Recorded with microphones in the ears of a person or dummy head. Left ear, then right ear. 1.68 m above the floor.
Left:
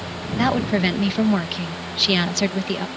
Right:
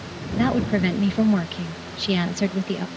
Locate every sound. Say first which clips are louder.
0.3 s a woman speaking: left 2 dB; 30° left (ahead or behind)